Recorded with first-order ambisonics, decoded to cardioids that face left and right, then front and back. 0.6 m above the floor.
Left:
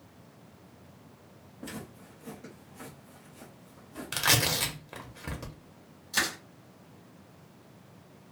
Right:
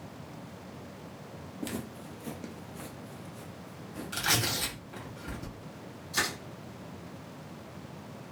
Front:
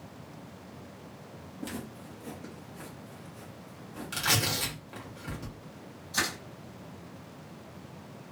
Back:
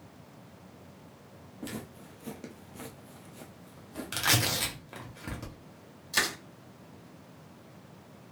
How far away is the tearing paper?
About 0.8 m.